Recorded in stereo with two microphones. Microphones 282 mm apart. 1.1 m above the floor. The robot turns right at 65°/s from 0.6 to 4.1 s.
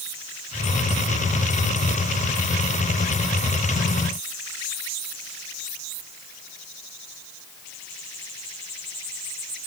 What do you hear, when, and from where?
Only background noise.